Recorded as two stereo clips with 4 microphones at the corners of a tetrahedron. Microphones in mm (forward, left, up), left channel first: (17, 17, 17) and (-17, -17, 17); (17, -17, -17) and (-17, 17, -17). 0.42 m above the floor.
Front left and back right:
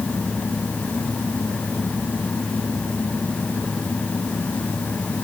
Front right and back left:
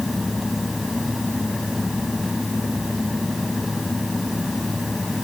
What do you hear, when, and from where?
Only background noise.